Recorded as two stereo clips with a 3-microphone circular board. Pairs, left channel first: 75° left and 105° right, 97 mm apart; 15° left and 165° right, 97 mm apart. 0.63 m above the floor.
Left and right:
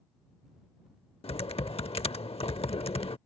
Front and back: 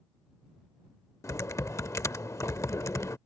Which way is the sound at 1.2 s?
75° left.